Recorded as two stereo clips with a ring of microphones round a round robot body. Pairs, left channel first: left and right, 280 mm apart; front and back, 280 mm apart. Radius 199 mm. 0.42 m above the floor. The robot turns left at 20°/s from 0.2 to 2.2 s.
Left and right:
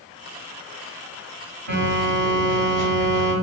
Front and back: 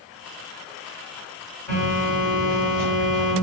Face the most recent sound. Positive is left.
turn(degrees=-95)